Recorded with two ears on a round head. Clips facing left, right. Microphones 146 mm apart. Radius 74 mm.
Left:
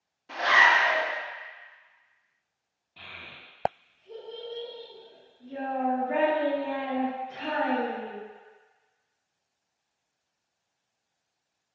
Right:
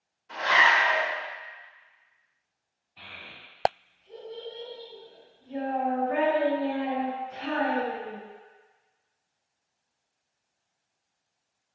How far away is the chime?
No chime in this recording.